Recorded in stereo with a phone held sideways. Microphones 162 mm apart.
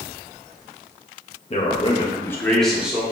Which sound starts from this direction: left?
A man speaking, at 1.5 s.